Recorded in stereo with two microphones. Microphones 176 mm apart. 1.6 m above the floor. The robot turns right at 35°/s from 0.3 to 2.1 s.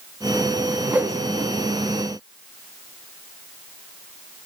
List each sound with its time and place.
0.9 s a whoosh: 5° right (ahead or behind), 0.6 m; by 1.5 s 30° right (ahead or behind), 0.6 m